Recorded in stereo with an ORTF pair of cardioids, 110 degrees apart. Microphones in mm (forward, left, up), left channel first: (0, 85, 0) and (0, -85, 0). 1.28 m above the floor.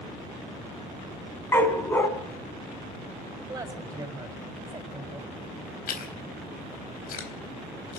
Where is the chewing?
60° left, 4 m.